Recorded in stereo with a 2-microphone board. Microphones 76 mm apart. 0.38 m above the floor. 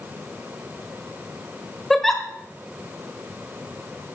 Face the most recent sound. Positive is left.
turn(degrees=5)  # may be behind; listen again after turning